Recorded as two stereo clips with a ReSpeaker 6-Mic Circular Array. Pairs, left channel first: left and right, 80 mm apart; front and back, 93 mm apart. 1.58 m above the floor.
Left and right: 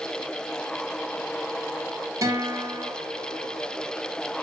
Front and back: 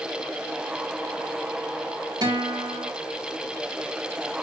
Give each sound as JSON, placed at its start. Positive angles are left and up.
{"t": 2.2, "sound": "a guitar", "azimuth_deg": -140, "distance_m": 3.0}